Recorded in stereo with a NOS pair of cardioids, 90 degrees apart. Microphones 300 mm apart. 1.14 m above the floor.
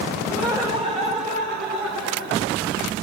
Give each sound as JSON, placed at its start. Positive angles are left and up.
{"t": 0.3, "sound": "laughter", "azimuth_deg": -10, "distance_m": 4.5}